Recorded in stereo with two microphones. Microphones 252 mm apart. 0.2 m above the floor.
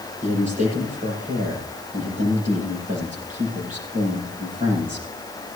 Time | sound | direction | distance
0.2 | a man speaking | 30° right (ahead or behind) | 6.5 m